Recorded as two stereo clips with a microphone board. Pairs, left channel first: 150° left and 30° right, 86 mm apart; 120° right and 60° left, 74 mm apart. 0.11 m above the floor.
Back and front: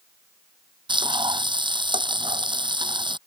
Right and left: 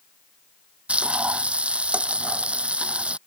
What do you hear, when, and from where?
0.9 s frying: 10° right